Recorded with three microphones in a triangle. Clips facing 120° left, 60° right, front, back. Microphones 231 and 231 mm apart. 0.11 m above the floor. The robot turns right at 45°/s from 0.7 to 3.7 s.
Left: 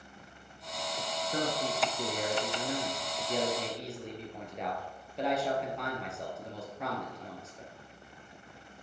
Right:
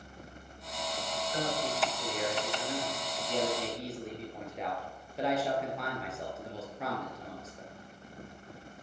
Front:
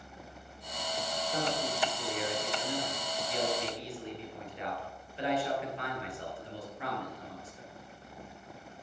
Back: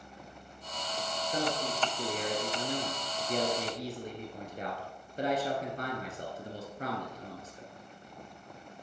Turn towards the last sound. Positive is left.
turn(degrees=-150)